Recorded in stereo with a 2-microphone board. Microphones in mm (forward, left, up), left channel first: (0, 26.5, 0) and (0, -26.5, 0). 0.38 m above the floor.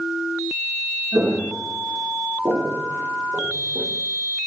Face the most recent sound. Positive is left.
turn(degrees=-25)  # may be behind; listen again after turning